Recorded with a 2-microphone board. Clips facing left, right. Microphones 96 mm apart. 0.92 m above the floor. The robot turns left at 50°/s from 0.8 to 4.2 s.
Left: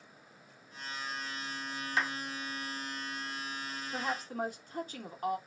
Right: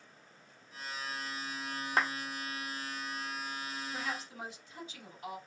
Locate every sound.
2.0 s a clap: 50° right (ahead or behind), 0.9 m; by 2.1 s 45° right (ahead or behind), 0.9 m
3.9 s a woman speaking: 35° left (ahead or behind), 1.0 m; by 5.4 s 45° left (ahead or behind), 1.0 m